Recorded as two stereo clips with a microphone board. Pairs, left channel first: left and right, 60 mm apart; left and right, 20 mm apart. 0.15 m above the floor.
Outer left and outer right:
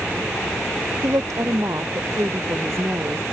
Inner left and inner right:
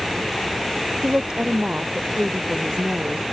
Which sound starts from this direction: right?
A woman speaking, at 1.0 s.